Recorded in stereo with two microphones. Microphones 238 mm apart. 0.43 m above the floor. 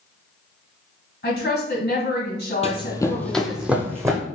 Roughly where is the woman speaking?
Left.